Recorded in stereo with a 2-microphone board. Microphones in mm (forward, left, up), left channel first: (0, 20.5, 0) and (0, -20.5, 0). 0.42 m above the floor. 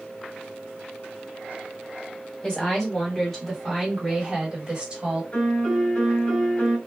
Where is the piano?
35° left (ahead or behind), 1.9 m.